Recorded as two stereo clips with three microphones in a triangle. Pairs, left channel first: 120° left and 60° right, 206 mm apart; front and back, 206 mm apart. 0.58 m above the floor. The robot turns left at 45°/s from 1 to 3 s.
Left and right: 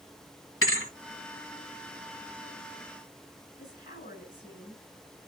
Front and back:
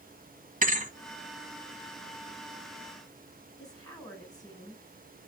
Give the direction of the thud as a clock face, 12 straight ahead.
8 o'clock.